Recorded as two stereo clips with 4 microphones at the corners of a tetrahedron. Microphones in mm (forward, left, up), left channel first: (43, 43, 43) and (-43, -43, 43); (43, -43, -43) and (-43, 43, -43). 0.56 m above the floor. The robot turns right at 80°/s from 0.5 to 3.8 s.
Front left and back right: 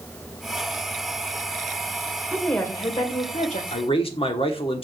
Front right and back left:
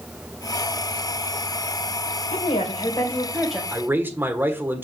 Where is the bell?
No bell in this recording.